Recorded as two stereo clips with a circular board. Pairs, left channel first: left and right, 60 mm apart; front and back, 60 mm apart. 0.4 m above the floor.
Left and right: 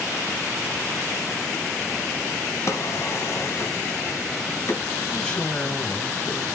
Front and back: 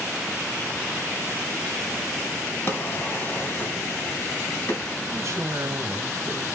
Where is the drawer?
55° left, 1.7 m.